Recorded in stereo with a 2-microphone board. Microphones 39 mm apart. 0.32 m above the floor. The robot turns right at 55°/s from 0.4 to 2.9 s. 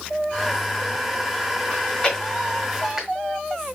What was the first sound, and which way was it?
Chewing, 35° left (ahead or behind).